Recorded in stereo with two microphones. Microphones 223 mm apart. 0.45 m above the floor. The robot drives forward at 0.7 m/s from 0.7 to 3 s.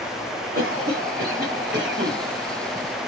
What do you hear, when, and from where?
0.6 s a cough: 40° right (ahead or behind), 2 m; by 2.2 s 55° right (ahead or behind), 1.6 m